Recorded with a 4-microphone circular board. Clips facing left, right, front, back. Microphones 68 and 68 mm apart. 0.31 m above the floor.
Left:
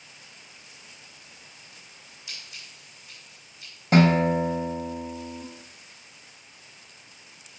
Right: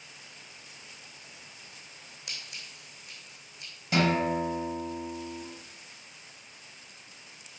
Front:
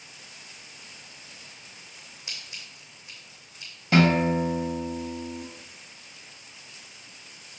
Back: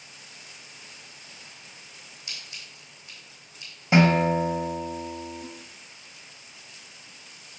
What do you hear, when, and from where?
2.3 s scissors: 65° right, 3 m
3.9 s a guitar: 115° left, 1.0 m